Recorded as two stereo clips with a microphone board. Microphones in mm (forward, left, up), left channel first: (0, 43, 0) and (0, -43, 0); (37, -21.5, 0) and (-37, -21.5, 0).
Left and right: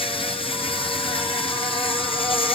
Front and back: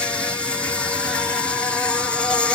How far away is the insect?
About 2 m.